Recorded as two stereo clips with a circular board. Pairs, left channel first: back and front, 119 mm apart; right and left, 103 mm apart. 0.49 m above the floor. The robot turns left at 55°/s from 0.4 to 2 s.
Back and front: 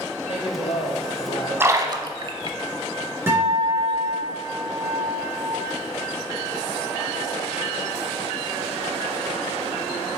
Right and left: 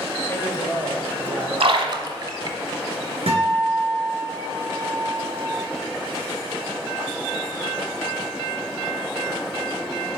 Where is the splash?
70° left, 0.7 m; by 2.6 s 45° left, 0.7 m.